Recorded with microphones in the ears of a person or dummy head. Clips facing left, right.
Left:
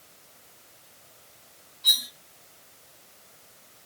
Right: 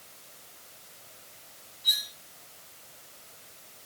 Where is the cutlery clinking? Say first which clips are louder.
Left 5 dB; 60° left (ahead or behind), 1.4 m.